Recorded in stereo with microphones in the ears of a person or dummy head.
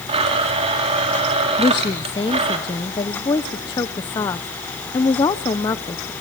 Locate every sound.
0.1 s a blender: 35° right (ahead or behind), 3.5 m
1.6 s a woman speaking: 15° left (ahead or behind), 0.6 m